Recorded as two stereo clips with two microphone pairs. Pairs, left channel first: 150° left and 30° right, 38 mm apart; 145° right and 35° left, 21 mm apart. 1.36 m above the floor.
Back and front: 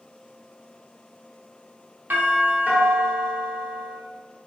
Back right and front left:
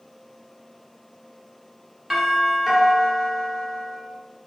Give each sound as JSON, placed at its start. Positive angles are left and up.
{"t": 2.1, "sound": "a doorbell", "azimuth_deg": -35, "distance_m": 1.2}